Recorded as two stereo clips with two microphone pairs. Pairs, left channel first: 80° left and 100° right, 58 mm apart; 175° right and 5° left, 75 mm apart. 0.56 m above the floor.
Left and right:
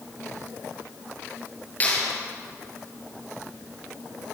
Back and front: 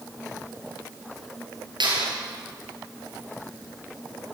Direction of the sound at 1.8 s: 20° left.